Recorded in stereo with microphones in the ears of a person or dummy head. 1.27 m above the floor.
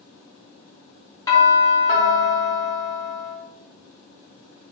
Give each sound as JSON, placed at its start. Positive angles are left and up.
{"t": 1.3, "sound": "a doorbell", "side_deg": 20, "distance_m": 1.6}